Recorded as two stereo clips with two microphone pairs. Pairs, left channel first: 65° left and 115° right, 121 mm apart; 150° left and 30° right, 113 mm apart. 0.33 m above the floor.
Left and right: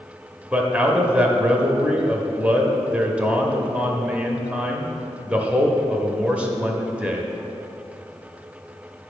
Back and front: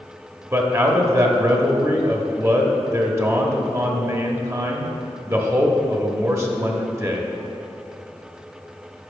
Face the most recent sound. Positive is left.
turn(degrees=-50)